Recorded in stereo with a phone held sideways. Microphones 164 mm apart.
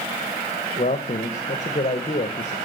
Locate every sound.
0.8 s a man speaking: 45° left (ahead or behind), 0.9 m